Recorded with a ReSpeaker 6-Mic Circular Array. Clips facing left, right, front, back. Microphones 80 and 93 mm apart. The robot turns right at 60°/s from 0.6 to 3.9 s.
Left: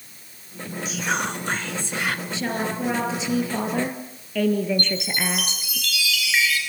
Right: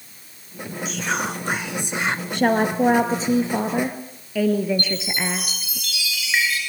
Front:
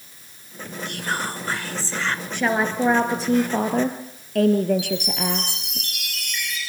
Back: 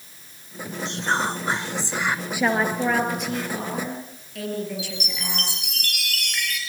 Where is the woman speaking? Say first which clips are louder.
Right 7 dB, front 1 dB; 100° right, 2 m; by 5.8 s 10° right, 2 m.